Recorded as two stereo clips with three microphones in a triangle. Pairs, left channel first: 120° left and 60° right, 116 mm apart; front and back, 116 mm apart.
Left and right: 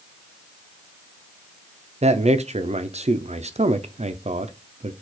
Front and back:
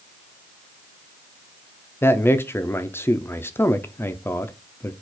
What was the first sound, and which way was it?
A man speaking, 70° right.